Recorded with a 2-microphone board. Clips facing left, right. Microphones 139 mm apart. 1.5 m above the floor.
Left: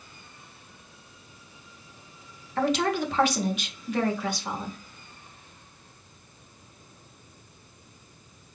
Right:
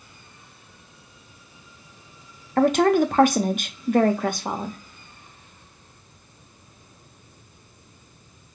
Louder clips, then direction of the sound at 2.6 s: Right 8 dB; 50° right (ahead or behind).